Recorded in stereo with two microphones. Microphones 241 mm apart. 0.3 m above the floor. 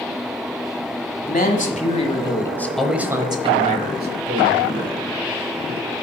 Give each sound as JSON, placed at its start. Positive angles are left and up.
{"t": 1.2, "sound": "a man speaking", "side_deg": 40, "distance_m": 1.6}